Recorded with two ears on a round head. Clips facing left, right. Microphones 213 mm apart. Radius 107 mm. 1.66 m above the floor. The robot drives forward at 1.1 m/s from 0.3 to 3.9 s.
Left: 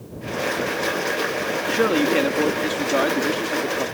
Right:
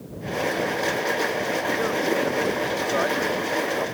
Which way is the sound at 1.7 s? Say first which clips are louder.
Left 7 dB; 85° left.